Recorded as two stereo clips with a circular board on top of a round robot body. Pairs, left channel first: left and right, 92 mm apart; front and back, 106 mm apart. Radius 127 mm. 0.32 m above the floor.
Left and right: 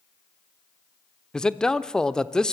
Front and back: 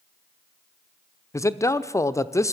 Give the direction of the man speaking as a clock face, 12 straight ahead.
11 o'clock.